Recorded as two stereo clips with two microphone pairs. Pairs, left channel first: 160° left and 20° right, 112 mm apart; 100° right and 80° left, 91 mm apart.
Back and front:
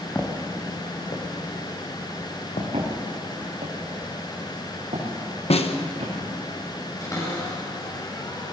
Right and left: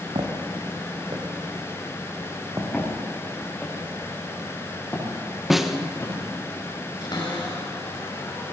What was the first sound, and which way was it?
Footsteps, 90° left.